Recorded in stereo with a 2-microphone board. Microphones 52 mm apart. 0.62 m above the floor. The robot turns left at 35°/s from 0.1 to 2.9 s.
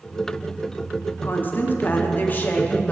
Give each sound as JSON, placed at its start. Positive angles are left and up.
{"t": 1.2, "sound": "a woman speaking", "azimuth_deg": 115, "distance_m": 0.6}